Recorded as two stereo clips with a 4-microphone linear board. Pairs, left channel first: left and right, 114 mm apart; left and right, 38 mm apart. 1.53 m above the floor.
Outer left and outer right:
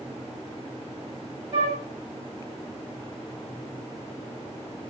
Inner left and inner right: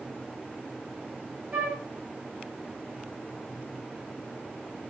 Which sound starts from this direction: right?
A flute, at 1.5 s.